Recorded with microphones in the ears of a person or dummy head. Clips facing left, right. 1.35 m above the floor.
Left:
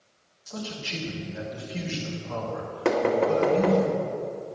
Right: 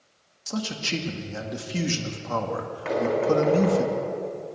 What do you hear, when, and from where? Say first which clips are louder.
0.5 s a man speaking: right 6 dB; 70° right (ahead or behind), 1.9 m
2.9 s knocking: left 1 dB; 60° left (ahead or behind), 2 m